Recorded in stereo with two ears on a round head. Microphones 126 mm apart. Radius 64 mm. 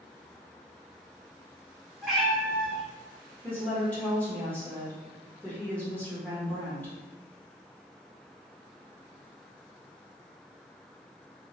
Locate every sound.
2.0 s a cat meowing: centre (ahead or behind), 2.0 m
3.4 s a woman speaking: 10° left (ahead or behind), 0.8 m